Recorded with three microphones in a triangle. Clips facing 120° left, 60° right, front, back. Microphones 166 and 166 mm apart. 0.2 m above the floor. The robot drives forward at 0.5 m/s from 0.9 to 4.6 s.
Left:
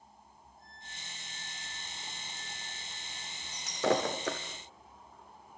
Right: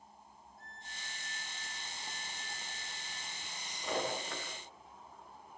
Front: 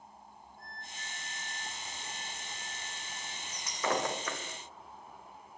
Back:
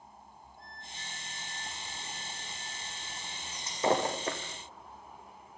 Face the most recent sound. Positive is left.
turn(degrees=120)